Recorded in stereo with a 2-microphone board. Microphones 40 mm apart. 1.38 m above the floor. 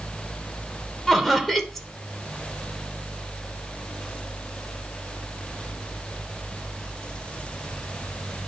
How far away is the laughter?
About 1.2 m.